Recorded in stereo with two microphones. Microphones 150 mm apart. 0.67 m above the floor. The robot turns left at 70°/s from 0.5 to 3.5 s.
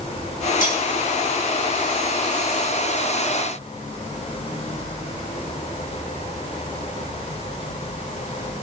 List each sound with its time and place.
0.6 s cutlery clinking: 75° left (ahead or behind), 2.5 m; by 0.8 s 60° left (ahead or behind), 2.5 m